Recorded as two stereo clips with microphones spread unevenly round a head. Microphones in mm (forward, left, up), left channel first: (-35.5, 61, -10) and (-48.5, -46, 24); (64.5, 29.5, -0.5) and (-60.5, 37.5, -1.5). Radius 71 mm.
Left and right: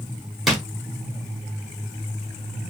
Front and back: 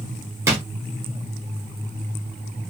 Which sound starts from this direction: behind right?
A drawer, at 0.5 s.